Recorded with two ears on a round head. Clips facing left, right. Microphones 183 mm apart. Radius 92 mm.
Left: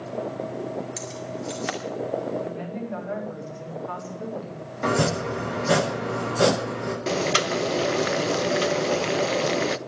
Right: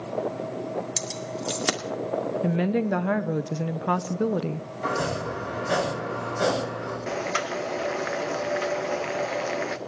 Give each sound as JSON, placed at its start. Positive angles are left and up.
{"t": 1.0, "sound": "keys jangling", "side_deg": -55, "distance_m": 2.5}
{"t": 2.4, "sound": "a woman speaking", "side_deg": -75, "distance_m": 1.1}
{"t": 4.8, "sound": "chopping", "side_deg": 75, "distance_m": 8.0}
{"t": 7.1, "sound": "boiling", "side_deg": 45, "distance_m": 0.7}